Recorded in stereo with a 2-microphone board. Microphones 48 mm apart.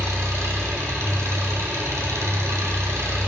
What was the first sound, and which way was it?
An engine running, 80° right.